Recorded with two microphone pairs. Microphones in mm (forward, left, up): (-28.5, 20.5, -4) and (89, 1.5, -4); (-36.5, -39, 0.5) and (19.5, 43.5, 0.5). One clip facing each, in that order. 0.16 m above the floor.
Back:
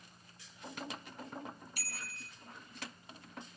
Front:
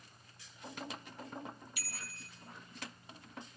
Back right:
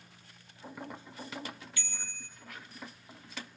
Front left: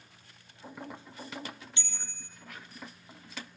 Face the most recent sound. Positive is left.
turn(degrees=120)